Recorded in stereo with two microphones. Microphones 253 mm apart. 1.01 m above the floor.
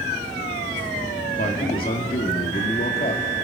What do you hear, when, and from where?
1.4 s a man speaking: 40° left (ahead or behind), 2.5 m